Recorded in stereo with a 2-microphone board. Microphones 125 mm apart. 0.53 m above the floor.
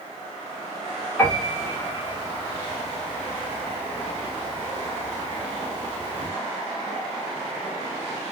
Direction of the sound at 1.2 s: 15° left (ahead or behind).